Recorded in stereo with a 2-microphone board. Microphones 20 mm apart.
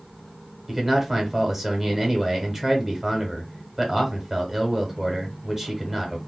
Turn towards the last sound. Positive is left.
turn(degrees=-10)  # may be behind; listen again after turning